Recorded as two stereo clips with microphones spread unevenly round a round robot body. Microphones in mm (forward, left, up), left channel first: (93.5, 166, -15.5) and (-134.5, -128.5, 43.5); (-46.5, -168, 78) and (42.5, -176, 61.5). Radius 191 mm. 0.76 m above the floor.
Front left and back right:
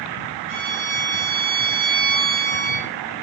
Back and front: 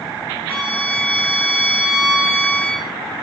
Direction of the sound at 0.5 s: 115° right.